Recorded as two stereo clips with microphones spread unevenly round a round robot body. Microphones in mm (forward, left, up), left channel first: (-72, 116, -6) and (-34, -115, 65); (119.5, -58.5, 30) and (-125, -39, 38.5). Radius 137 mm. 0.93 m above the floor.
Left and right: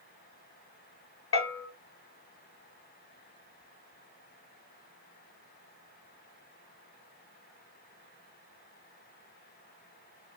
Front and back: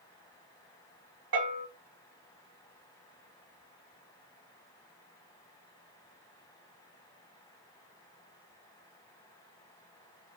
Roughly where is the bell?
Behind left.